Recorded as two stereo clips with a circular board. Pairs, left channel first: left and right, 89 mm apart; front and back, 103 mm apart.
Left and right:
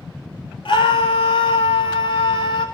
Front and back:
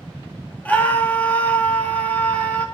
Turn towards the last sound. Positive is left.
turn(degrees=75)